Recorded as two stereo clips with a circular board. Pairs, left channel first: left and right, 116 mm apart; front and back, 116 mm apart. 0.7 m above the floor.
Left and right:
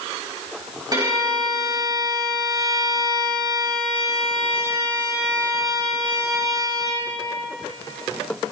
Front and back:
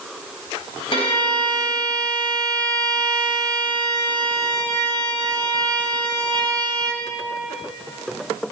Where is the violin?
35° right, 4.5 m.